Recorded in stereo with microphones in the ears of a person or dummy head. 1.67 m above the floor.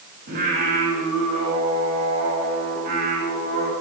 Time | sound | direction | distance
0.3 | singing | 40° right (ahead or behind) | 5 m